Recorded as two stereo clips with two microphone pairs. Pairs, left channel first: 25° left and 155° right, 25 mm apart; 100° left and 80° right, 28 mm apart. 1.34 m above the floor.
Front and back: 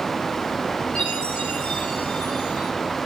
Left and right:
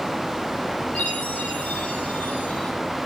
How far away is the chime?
About 6.5 m.